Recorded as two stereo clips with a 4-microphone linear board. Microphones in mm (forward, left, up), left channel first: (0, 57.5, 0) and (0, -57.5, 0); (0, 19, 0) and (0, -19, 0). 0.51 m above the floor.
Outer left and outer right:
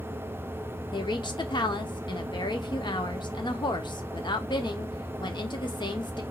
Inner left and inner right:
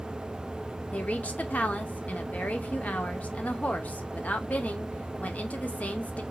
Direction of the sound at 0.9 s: 40° left (ahead or behind).